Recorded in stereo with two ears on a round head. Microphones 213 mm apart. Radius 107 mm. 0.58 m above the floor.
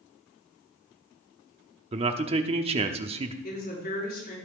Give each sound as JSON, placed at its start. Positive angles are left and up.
{"t": 1.9, "sound": "a man speaking", "side_deg": -25, "distance_m": 0.9}
{"t": 3.4, "sound": "a woman speaking", "side_deg": 45, "distance_m": 5.0}